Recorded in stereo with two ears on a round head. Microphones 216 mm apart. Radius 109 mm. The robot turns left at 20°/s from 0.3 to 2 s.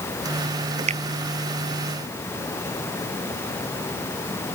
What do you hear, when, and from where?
0.9 s a finger snap: 30° right (ahead or behind); by 1.0 s 25° right (ahead or behind)